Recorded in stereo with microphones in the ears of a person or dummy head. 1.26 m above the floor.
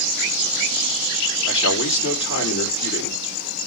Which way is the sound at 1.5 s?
65° left (ahead or behind).